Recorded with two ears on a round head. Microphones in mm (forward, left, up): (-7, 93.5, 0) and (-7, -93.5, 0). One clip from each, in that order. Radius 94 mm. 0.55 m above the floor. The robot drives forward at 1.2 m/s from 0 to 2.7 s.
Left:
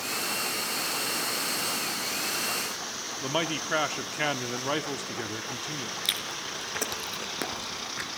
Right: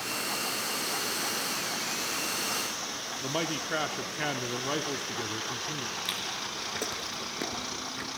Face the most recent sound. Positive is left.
turn(degrees=30)  # may be behind; listen again after turning